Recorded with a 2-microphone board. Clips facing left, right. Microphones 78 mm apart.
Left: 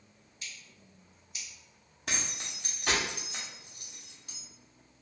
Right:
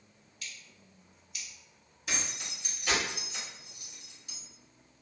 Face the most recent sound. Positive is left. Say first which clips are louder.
# even
turn(degrees=60)  # may be behind; listen again after turning